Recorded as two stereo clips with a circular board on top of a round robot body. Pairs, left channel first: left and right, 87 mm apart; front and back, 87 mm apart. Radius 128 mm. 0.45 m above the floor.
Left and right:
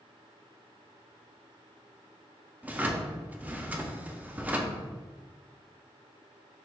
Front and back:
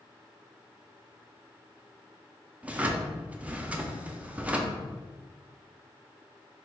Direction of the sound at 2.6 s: 130° right.